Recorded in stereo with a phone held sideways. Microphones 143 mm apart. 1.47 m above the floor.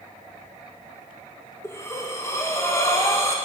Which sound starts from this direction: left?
Breathing, at 1.6 s.